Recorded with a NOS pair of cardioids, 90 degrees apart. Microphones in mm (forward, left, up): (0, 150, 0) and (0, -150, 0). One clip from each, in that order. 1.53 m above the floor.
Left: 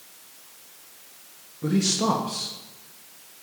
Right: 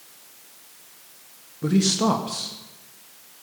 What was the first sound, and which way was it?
A man speaking, 20° right.